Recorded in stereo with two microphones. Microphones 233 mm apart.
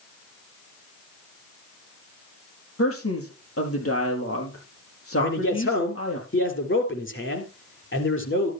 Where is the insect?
No insect in this recording.